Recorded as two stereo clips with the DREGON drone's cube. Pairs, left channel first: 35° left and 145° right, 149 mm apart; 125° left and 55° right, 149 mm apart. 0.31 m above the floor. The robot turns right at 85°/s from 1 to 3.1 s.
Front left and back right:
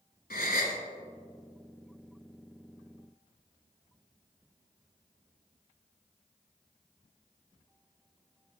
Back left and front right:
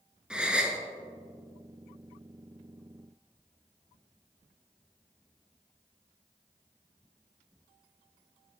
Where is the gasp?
30° left, 0.7 m.